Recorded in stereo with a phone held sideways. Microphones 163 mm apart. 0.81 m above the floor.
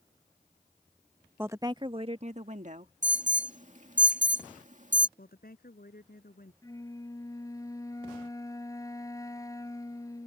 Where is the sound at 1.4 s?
10° right (ahead or behind); by 2.9 s 55° right (ahead or behind).